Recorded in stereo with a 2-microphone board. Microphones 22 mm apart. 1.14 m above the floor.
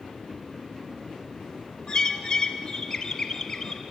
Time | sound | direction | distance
1.9 | a bird | 30° left (ahead or behind) | 1.4 m